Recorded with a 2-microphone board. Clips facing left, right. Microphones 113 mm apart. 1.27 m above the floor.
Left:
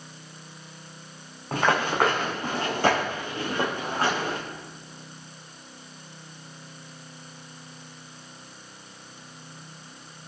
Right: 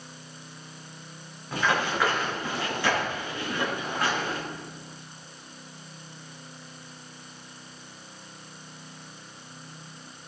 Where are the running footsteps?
65° left (ahead or behind), 5.5 m; by 4.4 s 40° left (ahead or behind), 6 m.